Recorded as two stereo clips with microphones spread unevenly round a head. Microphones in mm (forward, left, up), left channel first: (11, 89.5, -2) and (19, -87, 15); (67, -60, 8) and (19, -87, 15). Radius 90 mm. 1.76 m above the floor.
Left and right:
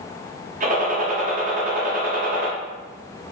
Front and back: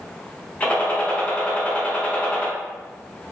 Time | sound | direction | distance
0.6 | a gunshot | 40° right | 1.3 m